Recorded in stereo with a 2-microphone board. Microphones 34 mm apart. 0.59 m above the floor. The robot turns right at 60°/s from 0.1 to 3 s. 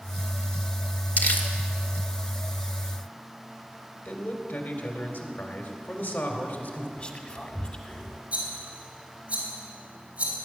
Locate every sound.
1.2 s crumpling: 55° left (ahead or behind), 1.4 m
4.0 s a man speaking: 70° left (ahead or behind), 2.5 m
7.0 s whispering: 35° left (ahead or behind), 1.7 m
8.3 s a rattle: 35° right (ahead or behind), 3.5 m